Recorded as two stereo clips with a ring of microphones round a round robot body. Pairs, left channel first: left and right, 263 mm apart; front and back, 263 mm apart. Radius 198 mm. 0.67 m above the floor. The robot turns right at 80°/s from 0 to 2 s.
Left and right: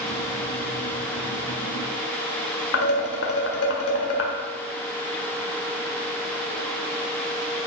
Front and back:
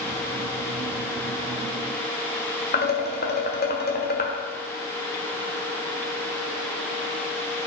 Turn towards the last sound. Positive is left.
turn(degrees=55)